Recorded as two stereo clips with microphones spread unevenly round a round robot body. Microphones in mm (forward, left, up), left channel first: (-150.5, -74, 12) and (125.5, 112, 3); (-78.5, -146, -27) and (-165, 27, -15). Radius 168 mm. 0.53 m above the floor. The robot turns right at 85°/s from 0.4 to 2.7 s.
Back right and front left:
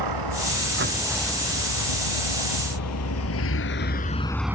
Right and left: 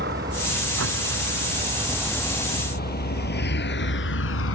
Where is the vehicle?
55° left; by 4.6 s 45° right.